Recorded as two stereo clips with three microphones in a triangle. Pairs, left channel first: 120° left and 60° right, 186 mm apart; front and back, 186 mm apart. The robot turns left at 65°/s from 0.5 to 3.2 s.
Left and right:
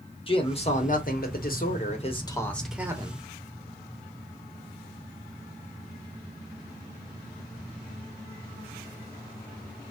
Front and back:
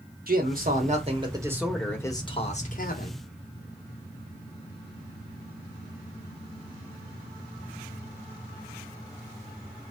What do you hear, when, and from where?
0.3 s a man speaking: 170° left, 1.1 m; by 3.2 s 5° right, 1.1 m